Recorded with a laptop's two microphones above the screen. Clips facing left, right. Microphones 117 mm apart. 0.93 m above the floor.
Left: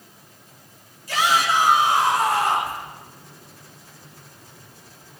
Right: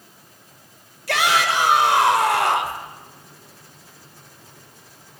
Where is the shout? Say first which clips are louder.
Even; 80° right, 4 m.